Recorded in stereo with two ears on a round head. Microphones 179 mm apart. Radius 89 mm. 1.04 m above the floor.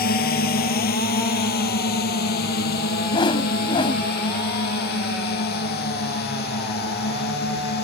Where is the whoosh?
25° left (ahead or behind).